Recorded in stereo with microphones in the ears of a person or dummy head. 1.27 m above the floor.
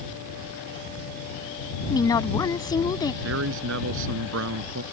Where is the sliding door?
No sliding door in this recording.